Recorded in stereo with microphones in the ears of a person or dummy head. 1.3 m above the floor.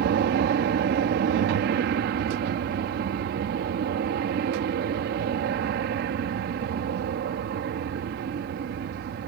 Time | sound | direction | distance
0.0 | an aircraft | 60° right (ahead or behind) | ?